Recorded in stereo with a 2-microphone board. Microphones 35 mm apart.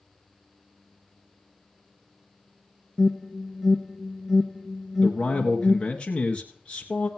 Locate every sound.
3.0 s an alarm: 5° right (ahead or behind), 1.1 m
5.0 s a man speaking: 25° left (ahead or behind), 1.4 m